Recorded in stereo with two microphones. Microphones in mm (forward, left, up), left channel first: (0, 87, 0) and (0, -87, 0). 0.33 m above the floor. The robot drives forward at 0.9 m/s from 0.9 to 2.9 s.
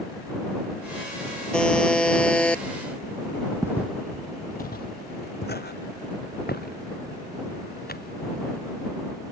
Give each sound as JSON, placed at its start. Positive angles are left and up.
{"t": 1.5, "sound": "a buzzer", "side_deg": 5}
{"t": 3.6, "sound": "footsteps", "side_deg": -15}